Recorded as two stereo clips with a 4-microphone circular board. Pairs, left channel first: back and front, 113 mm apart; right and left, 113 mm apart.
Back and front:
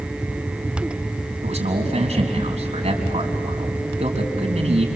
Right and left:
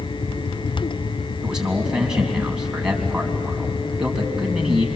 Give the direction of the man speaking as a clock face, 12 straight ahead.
12 o'clock.